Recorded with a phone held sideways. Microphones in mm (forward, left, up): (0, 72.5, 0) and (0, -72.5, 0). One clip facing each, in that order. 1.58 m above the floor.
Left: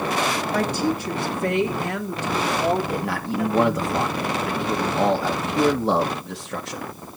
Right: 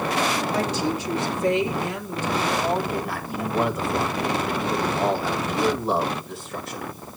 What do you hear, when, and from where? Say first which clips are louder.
0.5 s a woman speaking: left 2 dB; 50° left (ahead or behind), 2.5 m; by 3.9 s 80° left, 3.5 m
2.9 s a man speaking: left 3 dB; 90° left, 2 m